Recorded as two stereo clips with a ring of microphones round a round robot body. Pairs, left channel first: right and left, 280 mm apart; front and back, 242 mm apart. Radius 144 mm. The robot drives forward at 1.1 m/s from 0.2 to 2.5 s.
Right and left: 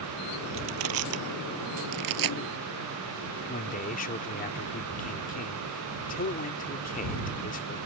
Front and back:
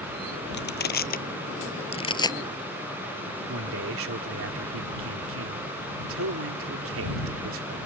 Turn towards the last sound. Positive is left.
turn(degrees=-150)